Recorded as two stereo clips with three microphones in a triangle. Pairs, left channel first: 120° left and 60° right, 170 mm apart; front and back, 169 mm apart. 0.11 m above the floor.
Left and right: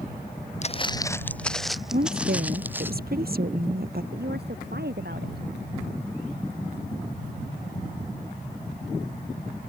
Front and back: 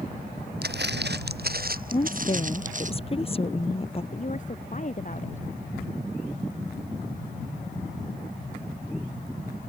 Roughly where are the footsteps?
Behind.